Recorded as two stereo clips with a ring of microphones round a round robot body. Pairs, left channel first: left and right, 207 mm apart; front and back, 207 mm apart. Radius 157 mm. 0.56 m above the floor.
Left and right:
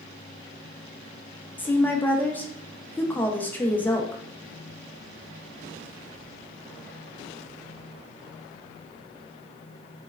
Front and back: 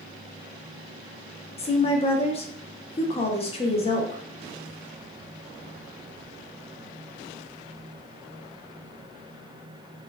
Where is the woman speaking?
15° left, 0.6 m.